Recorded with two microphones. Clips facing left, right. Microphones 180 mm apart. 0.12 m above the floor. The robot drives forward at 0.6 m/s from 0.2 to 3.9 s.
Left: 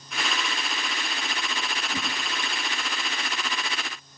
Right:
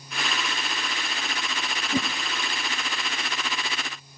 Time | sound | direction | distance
1.9 | a whoosh | 50° right (ahead or behind) | 0.9 m